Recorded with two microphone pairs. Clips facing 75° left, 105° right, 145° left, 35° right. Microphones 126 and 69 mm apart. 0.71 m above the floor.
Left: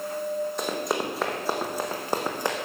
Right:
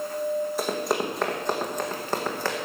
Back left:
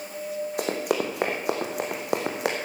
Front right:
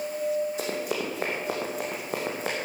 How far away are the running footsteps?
About 3 m.